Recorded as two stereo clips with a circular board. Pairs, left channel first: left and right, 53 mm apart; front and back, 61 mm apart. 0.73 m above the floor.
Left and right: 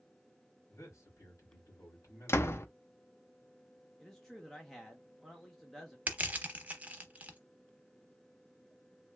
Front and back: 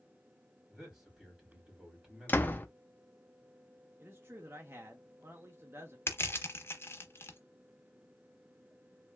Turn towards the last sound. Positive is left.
turn(degrees=-30)